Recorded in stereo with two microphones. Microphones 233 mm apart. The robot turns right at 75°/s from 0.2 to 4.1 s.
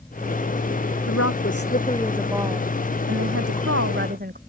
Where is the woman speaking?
95° left; by 4.4 s 40° right.